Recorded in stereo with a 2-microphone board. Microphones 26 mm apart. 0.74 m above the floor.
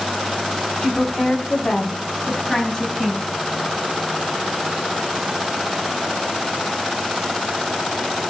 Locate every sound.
0.8 s a woman speaking: 25° left (ahead or behind), 7 m; by 3.2 s 15° left (ahead or behind), 8 m